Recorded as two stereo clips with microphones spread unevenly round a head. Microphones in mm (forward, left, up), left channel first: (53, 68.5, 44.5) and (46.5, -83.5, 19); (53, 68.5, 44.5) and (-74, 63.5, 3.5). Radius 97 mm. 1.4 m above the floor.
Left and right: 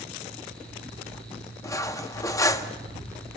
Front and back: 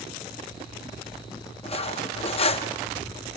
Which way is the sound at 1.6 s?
25° left.